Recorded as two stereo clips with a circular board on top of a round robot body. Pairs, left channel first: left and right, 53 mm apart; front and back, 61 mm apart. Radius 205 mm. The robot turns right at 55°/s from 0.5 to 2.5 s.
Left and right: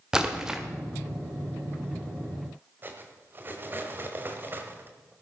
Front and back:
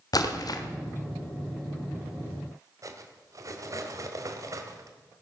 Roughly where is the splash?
Ahead.